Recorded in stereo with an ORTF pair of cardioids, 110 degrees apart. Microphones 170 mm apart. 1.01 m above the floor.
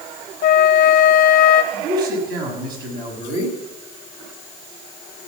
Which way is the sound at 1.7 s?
65° right.